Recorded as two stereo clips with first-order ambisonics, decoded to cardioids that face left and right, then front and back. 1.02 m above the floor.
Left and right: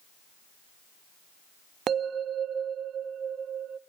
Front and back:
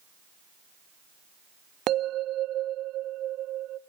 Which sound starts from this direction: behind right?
A bell, at 1.9 s.